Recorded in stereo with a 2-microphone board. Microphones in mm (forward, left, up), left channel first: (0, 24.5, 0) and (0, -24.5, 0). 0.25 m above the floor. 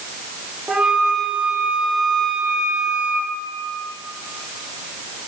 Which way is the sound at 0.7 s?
25° right (ahead or behind).